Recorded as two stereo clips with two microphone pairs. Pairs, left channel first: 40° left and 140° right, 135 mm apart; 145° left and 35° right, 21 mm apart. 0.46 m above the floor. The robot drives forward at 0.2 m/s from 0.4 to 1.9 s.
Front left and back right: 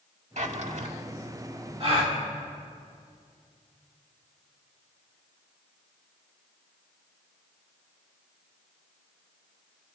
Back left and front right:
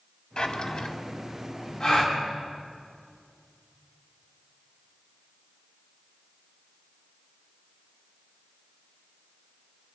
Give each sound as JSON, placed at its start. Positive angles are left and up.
{"t": 0.4, "sound": "a drawer", "azimuth_deg": -170, "distance_m": 0.8}
{"t": 1.8, "sound": "a gasp", "azimuth_deg": -170, "distance_m": 2.5}